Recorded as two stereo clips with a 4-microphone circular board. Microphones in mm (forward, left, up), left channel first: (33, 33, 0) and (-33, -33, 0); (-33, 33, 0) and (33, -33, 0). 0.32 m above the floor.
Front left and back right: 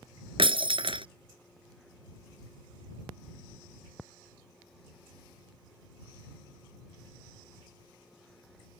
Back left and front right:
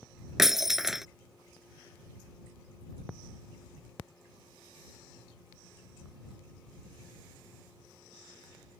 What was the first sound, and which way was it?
Breaking glass, 130° right.